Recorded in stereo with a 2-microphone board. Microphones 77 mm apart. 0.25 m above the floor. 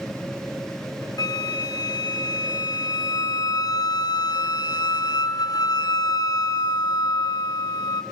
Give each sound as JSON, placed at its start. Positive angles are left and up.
{"t": 1.2, "sound": "a flute", "side_deg": 65, "distance_m": 2.0}